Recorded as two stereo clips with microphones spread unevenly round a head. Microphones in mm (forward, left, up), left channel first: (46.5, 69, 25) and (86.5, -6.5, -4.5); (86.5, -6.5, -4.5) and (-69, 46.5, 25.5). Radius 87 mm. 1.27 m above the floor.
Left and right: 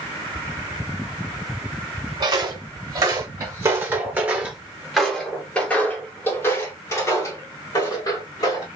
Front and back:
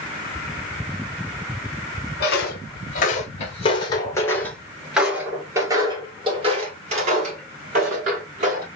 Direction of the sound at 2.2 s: 25° right.